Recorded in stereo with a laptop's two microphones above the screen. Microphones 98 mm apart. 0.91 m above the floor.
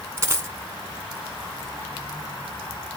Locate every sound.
0.2 s a dropped coin: 25° right (ahead or behind), 1.7 m